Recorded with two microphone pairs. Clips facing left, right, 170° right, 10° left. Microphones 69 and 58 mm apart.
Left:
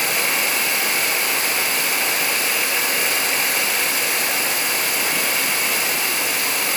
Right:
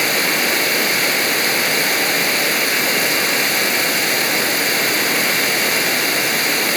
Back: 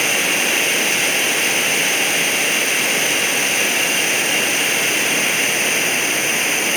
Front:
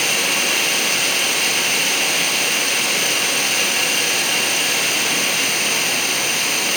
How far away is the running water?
About 2 m.